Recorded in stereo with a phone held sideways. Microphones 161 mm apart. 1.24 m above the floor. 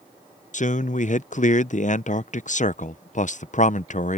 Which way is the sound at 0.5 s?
50° left (ahead or behind).